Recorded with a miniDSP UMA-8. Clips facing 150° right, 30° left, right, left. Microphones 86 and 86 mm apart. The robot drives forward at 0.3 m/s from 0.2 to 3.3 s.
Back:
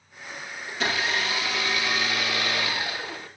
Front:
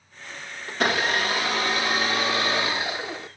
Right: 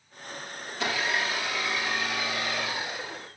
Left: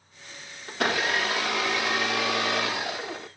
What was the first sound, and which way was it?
A blender, 65° left.